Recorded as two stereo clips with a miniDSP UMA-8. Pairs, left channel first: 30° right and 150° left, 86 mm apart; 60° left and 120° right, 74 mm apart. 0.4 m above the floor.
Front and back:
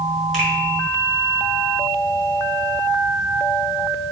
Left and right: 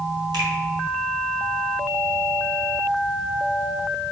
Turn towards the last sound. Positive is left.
turn(degrees=-120)